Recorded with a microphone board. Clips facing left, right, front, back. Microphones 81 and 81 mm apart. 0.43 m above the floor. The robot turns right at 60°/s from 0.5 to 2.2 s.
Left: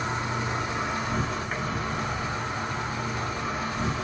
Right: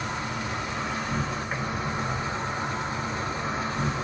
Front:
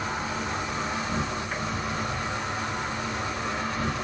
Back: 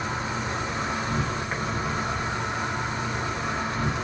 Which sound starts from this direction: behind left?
An insect, at 0.0 s.